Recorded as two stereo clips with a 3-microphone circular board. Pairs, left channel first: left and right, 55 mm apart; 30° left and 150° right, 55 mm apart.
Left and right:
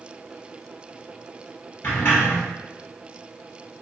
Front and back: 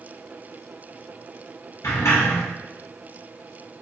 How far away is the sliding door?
About 1.9 m.